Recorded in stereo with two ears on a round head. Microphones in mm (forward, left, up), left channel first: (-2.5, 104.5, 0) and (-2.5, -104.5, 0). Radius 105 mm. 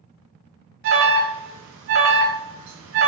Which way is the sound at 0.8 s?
55° right (ahead or behind).